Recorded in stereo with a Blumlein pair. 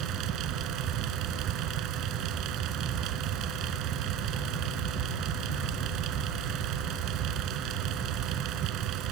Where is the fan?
35° right.